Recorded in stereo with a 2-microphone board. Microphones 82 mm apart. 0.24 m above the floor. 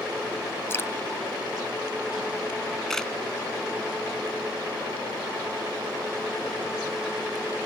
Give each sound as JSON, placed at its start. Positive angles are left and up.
{"t": 0.7, "sound": "dripping", "side_deg": 35}
{"t": 2.9, "sound": "a camera shutter", "side_deg": 10}